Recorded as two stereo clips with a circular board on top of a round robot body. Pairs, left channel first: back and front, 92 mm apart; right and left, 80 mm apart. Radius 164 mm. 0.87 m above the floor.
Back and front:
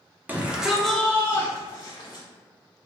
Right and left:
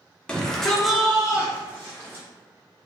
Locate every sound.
0.3 s a shout: 35° right, 0.9 m; by 2.2 s 150° left, 1.2 m